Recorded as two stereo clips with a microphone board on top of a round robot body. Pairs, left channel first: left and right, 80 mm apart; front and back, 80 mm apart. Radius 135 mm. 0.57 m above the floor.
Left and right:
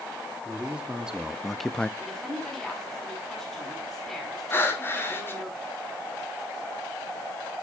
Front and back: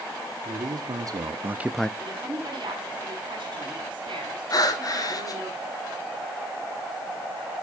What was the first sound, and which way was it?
A man speaking, 165° right.